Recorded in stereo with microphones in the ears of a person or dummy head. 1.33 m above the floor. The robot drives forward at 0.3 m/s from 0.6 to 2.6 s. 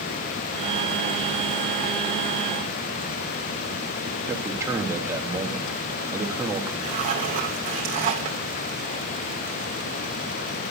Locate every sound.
4.3 s a man speaking: 15° right (ahead or behind), 1.7 m
6.8 s a zipper: 35° right (ahead or behind), 3 m